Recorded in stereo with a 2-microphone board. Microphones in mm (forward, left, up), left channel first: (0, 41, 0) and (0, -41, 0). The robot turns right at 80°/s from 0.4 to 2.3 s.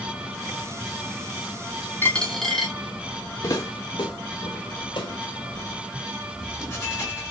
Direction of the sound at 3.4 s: 45° left (ahead or behind).